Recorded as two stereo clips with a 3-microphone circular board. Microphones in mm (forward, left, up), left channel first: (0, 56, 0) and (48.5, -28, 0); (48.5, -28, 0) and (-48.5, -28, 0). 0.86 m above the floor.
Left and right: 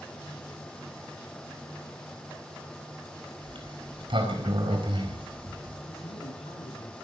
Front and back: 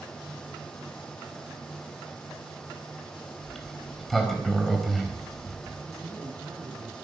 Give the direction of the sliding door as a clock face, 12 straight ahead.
3 o'clock.